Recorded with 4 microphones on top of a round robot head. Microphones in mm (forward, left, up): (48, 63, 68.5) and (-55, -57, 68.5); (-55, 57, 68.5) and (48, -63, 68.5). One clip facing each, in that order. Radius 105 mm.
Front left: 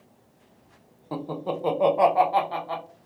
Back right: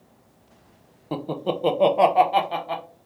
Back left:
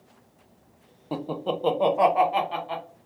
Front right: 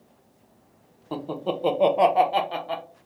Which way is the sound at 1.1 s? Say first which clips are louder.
Back right 3 dB, even; 165° right.